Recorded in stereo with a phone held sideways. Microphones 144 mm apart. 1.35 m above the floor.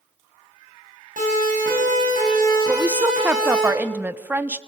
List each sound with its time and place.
1.2 s a siren: 80° right, 8 m; by 3.7 s 75° right (ahead or behind), 9.5 m
2.7 s a woman speaking: 10° right (ahead or behind), 0.9 m